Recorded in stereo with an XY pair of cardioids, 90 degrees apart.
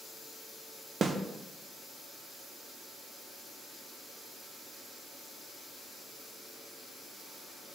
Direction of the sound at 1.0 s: 45° right.